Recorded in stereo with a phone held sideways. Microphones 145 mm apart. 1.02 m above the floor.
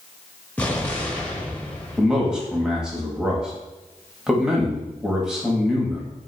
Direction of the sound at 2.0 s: 5° right (ahead or behind).